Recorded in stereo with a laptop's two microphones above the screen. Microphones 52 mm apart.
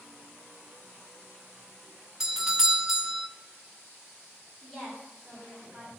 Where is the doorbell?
10° right (ahead or behind), 0.6 m.